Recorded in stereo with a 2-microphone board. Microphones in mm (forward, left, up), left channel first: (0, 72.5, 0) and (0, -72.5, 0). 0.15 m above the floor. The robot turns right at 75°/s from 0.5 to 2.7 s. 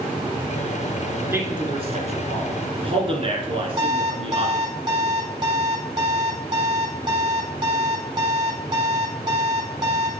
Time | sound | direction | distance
1.3 | a man speaking | 15° right (ahead or behind) | 1.8 m
3.8 | an alarm clock | 30° right (ahead or behind) | 2.5 m